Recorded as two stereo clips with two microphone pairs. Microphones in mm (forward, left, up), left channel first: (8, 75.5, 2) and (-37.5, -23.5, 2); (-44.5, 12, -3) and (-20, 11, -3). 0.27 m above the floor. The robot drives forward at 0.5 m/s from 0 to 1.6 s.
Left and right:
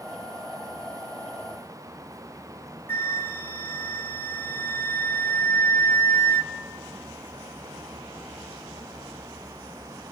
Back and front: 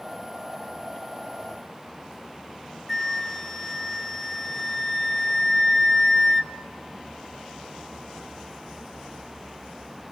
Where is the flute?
110° left, 0.7 m.